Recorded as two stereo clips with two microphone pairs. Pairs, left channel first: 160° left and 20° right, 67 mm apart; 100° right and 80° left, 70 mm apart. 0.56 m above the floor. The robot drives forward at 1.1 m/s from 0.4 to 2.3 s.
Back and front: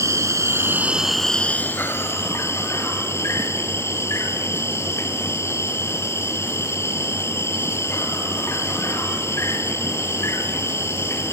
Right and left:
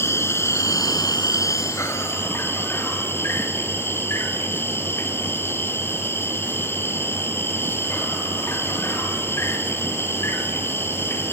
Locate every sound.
0.0 s an insect: 55° right, 1.0 m; by 11.3 s 155° right, 1.7 m